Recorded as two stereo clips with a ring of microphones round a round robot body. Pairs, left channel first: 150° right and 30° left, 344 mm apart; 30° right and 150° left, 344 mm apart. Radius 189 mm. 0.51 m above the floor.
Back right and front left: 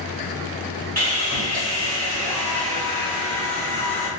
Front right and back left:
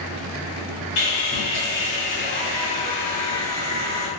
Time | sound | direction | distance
1.0 | sawing | 70° right | 1.6 m